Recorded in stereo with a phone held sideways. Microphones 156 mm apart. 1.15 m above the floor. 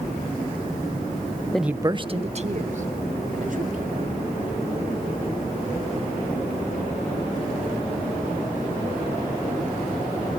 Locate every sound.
1.5 s a man speaking: 5° left (ahead or behind), 0.6 m; by 4.1 s 60° right (ahead or behind), 4 m